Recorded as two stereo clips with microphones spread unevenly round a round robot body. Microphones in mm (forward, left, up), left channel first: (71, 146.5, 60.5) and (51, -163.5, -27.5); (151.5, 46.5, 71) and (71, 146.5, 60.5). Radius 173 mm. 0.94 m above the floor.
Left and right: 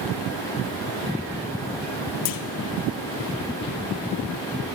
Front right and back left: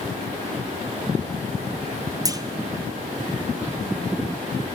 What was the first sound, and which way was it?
A clunk, 75° left.